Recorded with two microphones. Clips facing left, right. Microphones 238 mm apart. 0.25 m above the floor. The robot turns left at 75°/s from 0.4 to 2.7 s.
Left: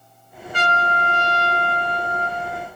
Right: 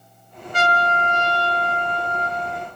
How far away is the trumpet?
About 0.7 m.